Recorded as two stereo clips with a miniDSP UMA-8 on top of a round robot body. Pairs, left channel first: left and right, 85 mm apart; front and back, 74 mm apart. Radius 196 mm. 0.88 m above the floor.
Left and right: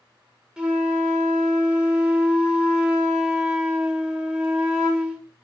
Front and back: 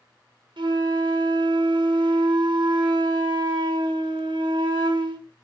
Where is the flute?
170° right, 1.5 m.